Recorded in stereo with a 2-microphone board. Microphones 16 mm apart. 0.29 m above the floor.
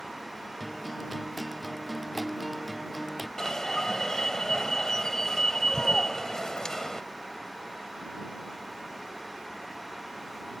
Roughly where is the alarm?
Left.